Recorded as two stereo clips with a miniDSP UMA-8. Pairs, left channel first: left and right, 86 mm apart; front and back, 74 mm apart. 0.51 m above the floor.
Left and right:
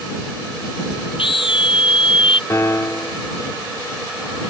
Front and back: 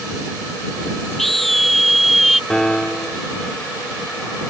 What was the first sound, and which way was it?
A scream, 85° left.